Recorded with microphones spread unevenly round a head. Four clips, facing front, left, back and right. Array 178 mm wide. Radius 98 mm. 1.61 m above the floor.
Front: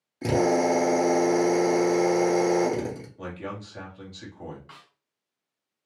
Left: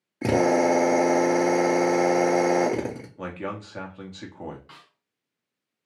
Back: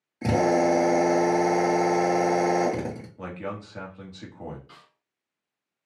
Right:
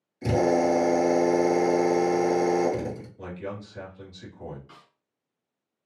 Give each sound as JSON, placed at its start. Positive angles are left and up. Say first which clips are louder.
{"t": 0.2, "sound": "a drill", "louder": "left 2 dB, back 1 dB", "azimuth_deg": 100, "distance_m": 1.2}
{"t": 3.2, "sound": "a man speaking", "louder": "left 3 dB, back 1 dB", "azimuth_deg": 105, "distance_m": 1.2}
{"t": 4.7, "sound": "a snare drum", "louder": "left 1 dB, front 2 dB", "azimuth_deg": 15, "distance_m": 1.9}